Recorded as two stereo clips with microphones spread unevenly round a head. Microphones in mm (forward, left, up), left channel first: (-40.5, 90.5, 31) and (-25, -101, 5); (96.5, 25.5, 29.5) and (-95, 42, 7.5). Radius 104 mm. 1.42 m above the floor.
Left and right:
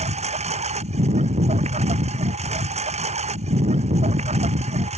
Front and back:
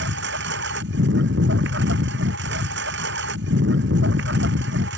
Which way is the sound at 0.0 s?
145° right.